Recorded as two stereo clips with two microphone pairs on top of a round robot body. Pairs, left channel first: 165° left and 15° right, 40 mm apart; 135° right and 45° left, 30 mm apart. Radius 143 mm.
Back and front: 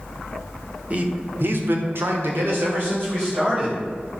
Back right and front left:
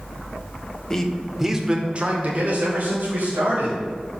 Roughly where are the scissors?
I don't hear scissors.